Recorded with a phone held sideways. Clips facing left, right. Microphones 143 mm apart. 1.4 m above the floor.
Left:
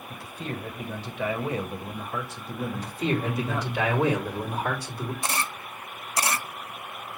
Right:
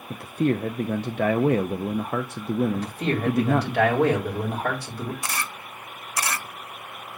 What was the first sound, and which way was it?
A man speaking, 60° right (ahead or behind).